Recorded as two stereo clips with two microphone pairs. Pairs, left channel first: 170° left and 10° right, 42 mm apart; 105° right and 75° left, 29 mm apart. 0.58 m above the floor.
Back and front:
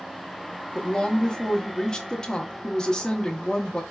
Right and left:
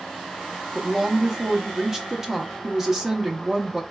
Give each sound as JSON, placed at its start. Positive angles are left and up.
{"t": 0.8, "sound": "a woman speaking", "azimuth_deg": 120, "distance_m": 0.7}